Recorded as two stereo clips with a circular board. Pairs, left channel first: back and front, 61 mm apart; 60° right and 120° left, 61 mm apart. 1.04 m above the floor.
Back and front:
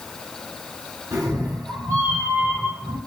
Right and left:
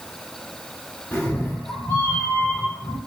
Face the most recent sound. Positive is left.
turn(degrees=-45)